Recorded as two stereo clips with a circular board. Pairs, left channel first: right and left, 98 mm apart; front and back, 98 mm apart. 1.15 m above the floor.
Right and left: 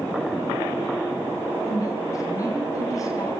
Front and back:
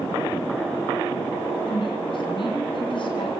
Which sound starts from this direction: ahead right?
A woman speaking, at 1.7 s.